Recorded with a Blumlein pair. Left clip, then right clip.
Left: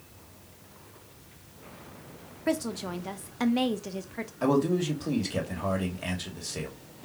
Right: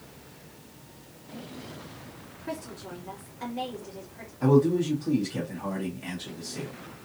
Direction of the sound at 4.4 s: 65° left.